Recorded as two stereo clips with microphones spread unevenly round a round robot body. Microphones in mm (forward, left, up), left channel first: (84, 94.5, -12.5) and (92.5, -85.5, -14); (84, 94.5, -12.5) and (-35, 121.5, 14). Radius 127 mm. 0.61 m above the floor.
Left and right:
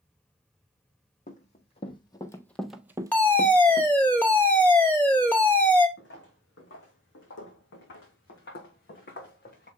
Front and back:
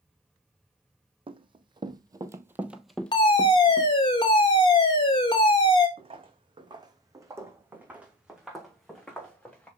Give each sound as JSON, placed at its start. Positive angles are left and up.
{"t": 1.3, "sound": "running footsteps", "azimuth_deg": 145, "distance_m": 1.1}
{"t": 3.1, "sound": "a fire alarm", "azimuth_deg": 15, "distance_m": 2.5}
{"t": 6.0, "sound": "footsteps", "azimuth_deg": 135, "distance_m": 2.5}